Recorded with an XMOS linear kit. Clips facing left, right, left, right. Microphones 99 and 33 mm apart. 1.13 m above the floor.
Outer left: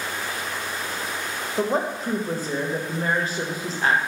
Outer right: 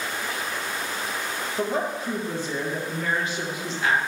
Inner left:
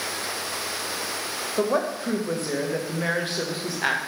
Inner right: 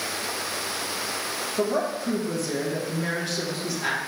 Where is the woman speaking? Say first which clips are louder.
Outer left 3 dB, inner left 2 dB; 40° left (ahead or behind), 1.2 m.